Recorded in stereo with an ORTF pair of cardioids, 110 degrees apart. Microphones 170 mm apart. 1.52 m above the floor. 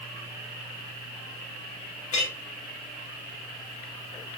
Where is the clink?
45° left, 1.5 m.